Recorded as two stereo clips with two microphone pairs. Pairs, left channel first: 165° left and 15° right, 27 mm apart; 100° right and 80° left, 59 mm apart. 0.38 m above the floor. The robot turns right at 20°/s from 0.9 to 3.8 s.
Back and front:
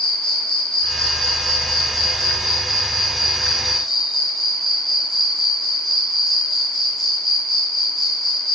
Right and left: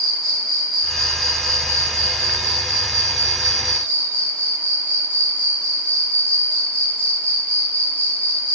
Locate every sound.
0.0 s an insect: 175° right, 0.9 m; by 8.6 s 120° right, 0.9 m